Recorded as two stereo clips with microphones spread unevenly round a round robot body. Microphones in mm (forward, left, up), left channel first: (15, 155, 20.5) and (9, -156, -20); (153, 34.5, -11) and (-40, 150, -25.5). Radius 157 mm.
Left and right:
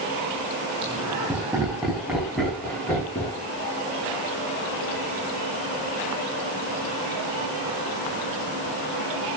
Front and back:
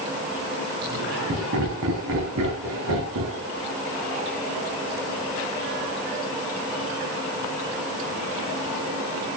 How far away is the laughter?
About 4 m.